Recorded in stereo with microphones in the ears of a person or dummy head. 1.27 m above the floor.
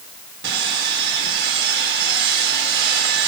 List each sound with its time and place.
0.4 s sawing: 65° right (ahead or behind), 3 m